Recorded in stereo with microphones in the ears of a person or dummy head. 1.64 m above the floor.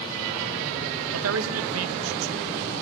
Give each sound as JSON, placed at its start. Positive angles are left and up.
{"t": 1.1, "sound": "a man speaking", "side_deg": -90, "distance_m": 2.5}